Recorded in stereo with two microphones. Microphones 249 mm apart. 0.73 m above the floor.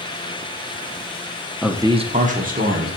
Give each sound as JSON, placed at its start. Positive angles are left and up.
{"t": 1.6, "sound": "a man speaking", "side_deg": 0, "distance_m": 0.6}